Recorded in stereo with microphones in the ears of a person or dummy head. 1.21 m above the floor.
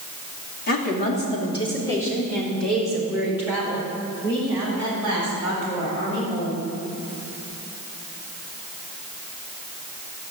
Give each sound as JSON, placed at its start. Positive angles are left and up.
{"t": 0.7, "sound": "a woman speaking", "side_deg": 45, "distance_m": 2.5}